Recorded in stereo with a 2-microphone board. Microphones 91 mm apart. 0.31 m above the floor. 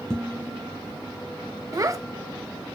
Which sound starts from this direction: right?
A child speaking, at 1.7 s.